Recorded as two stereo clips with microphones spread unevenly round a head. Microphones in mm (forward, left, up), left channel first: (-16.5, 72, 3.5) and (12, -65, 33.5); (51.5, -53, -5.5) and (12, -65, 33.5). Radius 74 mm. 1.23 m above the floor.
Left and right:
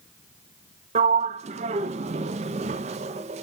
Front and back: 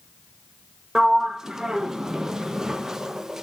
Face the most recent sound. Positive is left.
turn(degrees=-115)